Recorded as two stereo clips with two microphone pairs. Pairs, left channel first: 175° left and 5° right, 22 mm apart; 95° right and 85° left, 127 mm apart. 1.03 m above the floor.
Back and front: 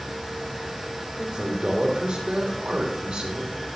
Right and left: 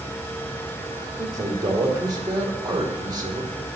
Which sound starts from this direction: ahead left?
A man speaking, at 1.2 s.